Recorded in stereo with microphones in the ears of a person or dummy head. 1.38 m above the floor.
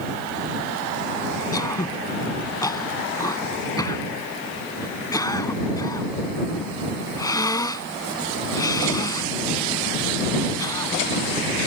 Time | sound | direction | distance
1.5 | throat clearing | 20° left (ahead or behind) | ?